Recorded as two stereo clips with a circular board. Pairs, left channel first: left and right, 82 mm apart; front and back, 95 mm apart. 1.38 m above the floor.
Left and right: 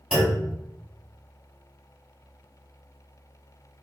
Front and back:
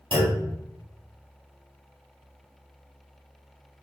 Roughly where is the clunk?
Behind.